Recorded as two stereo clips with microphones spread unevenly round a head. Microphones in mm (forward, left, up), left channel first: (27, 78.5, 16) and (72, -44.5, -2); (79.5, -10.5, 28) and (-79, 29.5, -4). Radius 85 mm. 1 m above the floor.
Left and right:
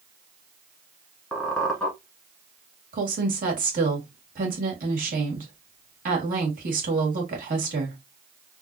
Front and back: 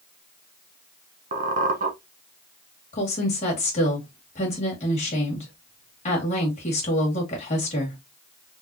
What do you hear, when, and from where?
1.3 s a squeak: straight behind, 1.0 m
2.9 s a woman speaking: 70° right, 2.0 m